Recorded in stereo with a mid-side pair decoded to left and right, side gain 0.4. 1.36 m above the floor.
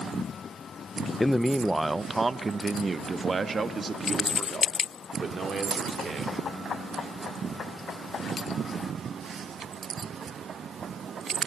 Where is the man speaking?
20° left, 0.7 m; by 6.4 s 45° right, 4.5 m.